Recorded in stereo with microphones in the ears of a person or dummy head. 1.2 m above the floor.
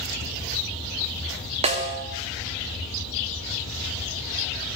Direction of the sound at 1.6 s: 35° right (ahead or behind).